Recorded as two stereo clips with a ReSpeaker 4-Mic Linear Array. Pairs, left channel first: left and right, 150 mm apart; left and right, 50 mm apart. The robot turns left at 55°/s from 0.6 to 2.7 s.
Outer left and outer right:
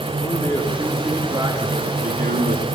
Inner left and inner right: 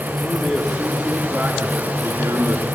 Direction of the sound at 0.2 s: 25° left.